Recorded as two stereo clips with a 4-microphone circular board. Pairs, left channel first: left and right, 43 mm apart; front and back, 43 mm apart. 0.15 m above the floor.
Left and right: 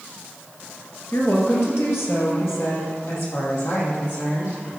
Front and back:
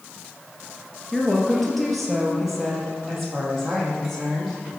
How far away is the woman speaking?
About 2.5 m.